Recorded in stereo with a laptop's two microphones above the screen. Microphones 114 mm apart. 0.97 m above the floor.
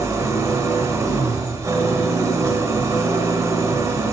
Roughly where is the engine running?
Right.